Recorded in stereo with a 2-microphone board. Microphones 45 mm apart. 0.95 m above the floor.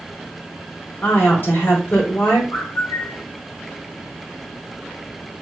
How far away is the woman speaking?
About 3 m.